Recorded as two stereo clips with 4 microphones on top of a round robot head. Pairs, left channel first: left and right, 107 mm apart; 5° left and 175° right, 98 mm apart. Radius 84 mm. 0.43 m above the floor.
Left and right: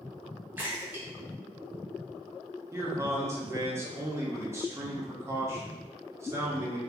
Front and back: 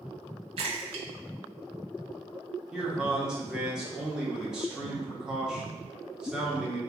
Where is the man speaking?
100° right, 0.8 m.